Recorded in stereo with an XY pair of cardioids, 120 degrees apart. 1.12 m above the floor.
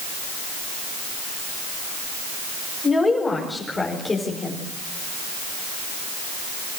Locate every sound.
2.8 s a woman speaking: 15° left, 5.5 m; by 4.6 s 20° left, 4 m